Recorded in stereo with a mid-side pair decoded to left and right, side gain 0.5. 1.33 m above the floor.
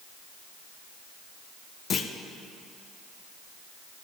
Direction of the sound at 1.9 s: 50° left.